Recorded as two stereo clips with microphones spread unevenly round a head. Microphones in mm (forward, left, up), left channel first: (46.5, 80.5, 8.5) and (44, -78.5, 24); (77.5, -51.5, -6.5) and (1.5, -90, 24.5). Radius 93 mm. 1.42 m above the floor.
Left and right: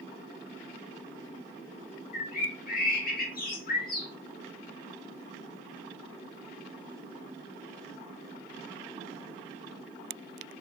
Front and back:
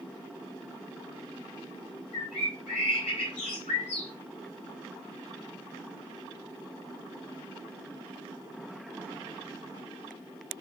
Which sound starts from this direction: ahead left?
A bird, at 2.1 s.